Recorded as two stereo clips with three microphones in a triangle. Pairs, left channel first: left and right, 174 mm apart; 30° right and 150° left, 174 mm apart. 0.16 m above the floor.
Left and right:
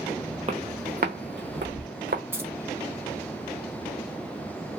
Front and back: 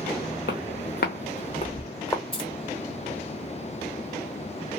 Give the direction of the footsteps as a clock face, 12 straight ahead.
1 o'clock.